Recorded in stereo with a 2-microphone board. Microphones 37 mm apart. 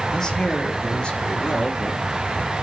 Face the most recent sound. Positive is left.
turn(degrees=30)  # may be behind; listen again after turning